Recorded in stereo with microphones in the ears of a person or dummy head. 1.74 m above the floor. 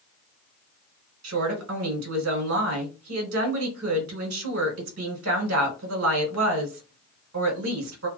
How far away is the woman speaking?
About 1.4 m.